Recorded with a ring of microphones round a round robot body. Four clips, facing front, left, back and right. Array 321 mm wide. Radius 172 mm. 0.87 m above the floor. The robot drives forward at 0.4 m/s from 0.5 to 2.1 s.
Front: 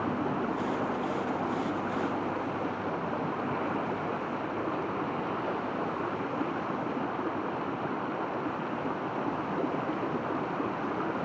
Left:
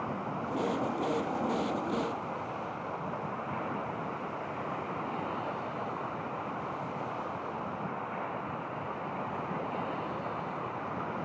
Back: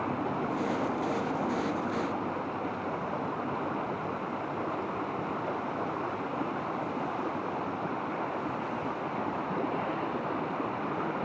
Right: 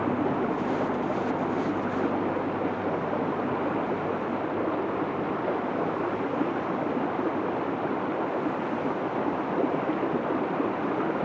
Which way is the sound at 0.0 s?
80° right.